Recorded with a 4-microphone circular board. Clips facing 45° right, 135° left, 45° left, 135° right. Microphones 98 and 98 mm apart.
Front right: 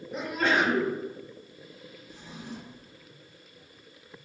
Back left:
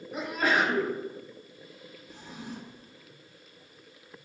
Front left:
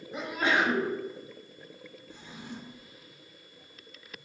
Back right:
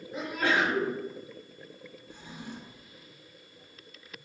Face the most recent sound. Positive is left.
turn(degrees=155)